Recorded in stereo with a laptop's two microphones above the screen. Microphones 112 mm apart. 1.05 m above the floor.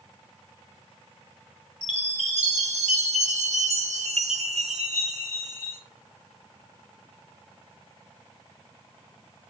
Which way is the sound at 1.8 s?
85° right.